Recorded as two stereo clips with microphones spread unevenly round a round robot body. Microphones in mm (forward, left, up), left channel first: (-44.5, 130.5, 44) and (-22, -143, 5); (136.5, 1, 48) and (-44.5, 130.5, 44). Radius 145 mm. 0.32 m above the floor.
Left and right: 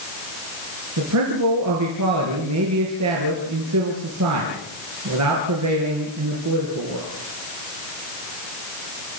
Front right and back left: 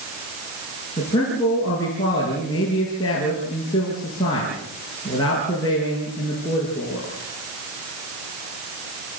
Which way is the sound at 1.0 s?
110° right.